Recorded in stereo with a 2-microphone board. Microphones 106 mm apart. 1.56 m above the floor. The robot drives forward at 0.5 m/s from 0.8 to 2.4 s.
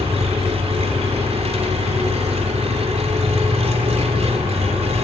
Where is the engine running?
75° right (ahead or behind), 3.5 m; by 5.0 s 80° right, 3.5 m.